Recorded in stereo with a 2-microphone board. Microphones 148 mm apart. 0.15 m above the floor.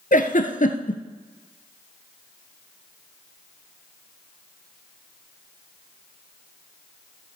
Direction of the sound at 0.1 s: 65° left (ahead or behind).